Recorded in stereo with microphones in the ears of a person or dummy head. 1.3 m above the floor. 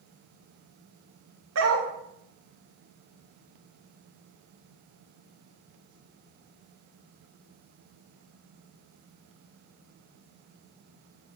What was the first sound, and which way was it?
A dog barking, 65° right (ahead or behind).